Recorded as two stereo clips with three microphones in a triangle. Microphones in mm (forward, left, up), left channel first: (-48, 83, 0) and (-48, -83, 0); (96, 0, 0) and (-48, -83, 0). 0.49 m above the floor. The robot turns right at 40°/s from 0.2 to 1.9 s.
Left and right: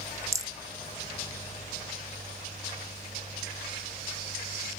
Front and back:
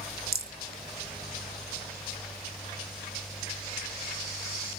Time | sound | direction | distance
0.3 | a rattle | 165° right | 0.5 m